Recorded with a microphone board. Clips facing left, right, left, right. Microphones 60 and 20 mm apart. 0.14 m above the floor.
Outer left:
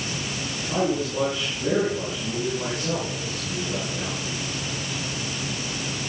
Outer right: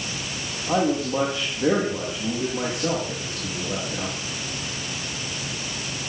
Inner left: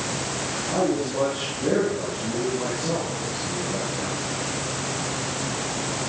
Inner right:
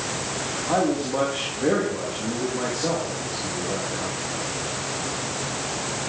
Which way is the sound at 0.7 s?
80° right.